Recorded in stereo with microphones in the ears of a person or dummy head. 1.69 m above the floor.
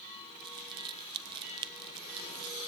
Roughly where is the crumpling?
Right.